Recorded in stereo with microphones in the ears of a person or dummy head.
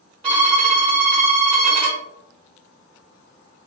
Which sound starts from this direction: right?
A violin, at 0.2 s.